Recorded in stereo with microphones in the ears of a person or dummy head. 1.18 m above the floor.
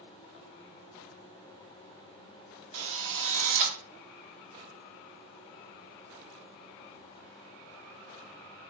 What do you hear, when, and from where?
2.7 s a drill: 65° right (ahead or behind), 0.7 m